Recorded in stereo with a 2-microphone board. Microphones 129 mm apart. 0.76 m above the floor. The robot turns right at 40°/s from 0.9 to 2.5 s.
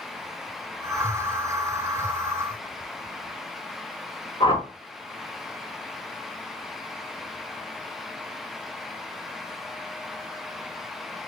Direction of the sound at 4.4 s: 45° left (ahead or behind).